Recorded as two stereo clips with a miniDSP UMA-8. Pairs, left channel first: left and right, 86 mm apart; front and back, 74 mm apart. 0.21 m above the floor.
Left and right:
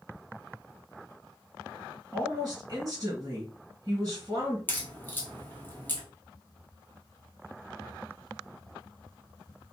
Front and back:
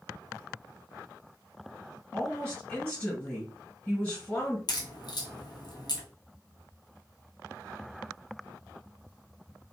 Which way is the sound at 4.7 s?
20° left.